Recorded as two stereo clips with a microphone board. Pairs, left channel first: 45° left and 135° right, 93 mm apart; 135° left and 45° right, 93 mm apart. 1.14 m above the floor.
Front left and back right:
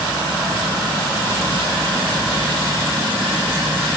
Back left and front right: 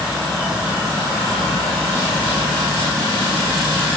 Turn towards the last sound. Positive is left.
No sound to turn to.